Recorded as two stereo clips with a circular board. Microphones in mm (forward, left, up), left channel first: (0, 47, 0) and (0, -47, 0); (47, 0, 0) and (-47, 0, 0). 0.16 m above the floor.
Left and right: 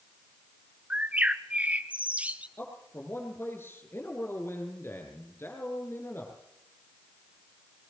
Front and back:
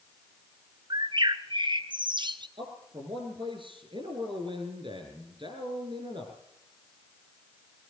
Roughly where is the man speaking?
Behind left.